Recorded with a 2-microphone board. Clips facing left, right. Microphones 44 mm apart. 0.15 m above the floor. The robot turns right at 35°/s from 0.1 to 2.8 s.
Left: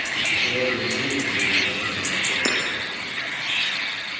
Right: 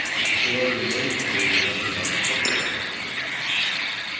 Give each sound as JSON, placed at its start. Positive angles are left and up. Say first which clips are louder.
{"t": 0.4, "sound": "a man speaking", "louder": "even", "azimuth_deg": 180, "distance_m": 7.5}
{"t": 2.5, "sound": "hammering", "louder": "left 1 dB", "side_deg": 50, "distance_m": 5.5}